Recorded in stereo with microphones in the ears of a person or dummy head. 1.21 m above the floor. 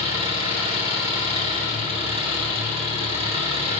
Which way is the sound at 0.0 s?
40° right (ahead or behind).